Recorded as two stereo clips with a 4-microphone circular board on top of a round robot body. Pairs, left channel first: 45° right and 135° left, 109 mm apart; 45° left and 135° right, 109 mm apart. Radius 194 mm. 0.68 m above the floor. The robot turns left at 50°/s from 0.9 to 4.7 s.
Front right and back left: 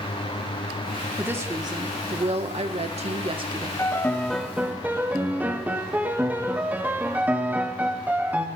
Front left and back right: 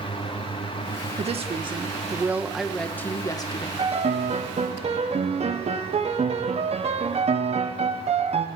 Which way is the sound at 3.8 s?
105° right.